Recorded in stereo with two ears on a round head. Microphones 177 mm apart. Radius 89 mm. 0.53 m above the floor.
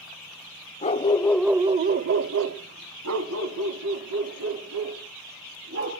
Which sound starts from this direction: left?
A dog barking, at 0.8 s.